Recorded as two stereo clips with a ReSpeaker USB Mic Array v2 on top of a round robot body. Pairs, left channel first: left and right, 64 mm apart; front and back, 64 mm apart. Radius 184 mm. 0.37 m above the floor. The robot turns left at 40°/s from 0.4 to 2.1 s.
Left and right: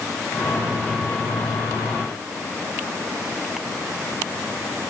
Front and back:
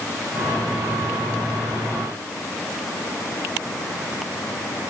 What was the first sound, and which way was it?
Only background noise.